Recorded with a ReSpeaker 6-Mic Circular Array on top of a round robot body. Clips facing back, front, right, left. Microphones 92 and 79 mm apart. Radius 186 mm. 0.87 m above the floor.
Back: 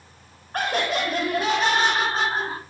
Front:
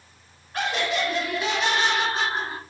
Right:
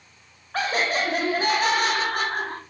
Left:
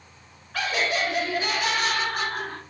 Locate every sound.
0.5 s laughter: 145° right, 2.0 m; by 2.6 s 130° right, 3.5 m